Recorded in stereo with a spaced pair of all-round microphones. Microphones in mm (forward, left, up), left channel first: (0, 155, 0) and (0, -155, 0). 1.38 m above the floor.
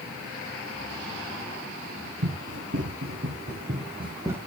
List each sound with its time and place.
2.2 s running footsteps: 65° right (ahead or behind), 3.5 m; by 4.4 s 5° right (ahead or behind), 3 m